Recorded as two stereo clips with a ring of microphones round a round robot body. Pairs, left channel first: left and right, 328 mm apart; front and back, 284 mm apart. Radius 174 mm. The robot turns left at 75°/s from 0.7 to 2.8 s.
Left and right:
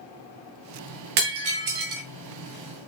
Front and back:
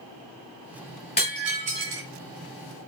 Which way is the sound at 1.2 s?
70° right.